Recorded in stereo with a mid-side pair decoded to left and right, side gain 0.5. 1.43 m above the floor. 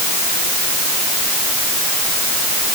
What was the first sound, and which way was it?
Only background noise.